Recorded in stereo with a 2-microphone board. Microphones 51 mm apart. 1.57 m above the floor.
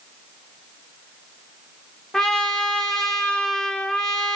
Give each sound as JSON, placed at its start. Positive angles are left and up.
{"t": 2.1, "sound": "a trumpet", "side_deg": 10, "distance_m": 1.5}